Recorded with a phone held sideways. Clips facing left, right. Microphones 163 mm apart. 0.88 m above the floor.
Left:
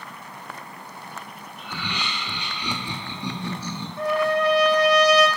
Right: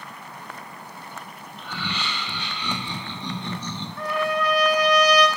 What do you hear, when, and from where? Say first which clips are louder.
1.6 s laughter: right 1 dB; 15° left (ahead or behind), 1.8 m; by 3.9 s 5° left (ahead or behind), 0.6 m
4.0 s a trumpet: left 4 dB; 25° left (ahead or behind), 0.6 m